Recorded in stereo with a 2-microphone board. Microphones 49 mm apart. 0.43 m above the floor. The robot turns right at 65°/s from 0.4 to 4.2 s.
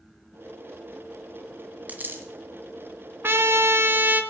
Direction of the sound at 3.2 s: 115° right.